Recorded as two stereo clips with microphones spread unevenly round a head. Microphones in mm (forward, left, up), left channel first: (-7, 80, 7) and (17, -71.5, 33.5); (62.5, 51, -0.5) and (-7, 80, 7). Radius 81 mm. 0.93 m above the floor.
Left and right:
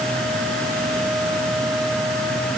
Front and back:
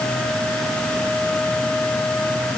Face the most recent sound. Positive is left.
No sound to turn to.